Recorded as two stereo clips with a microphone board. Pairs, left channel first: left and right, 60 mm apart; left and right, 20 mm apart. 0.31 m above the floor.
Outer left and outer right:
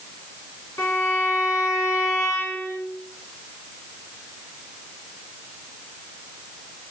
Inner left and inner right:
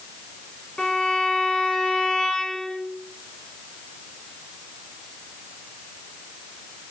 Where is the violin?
60° left (ahead or behind), 2.5 m.